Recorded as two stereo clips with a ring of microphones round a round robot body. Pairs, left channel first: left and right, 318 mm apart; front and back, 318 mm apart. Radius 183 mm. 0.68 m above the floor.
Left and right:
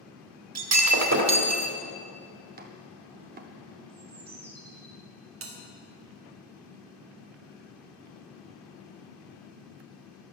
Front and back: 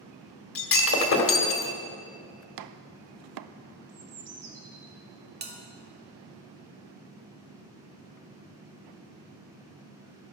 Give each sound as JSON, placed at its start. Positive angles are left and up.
{"t": 0.6, "sound": "breaking glass", "azimuth_deg": -50, "distance_m": 2.0}
{"t": 2.6, "sound": "chopping", "azimuth_deg": -155, "distance_m": 0.6}
{"t": 3.9, "sound": "a bird", "azimuth_deg": -155, "distance_m": 2.5}
{"t": 5.4, "sound": "a bell", "azimuth_deg": -130, "distance_m": 1.8}